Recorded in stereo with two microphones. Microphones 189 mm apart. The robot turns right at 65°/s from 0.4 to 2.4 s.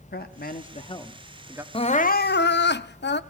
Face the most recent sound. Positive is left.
turn(degrees=70)